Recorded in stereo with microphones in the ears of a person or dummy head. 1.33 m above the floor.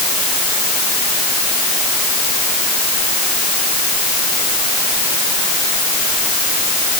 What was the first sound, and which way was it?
Only background noise.